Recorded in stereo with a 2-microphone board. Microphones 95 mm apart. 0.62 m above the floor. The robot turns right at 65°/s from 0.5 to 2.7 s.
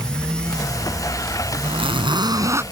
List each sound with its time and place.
1.6 s a zipper: 95° right; by 2.6 s 30° right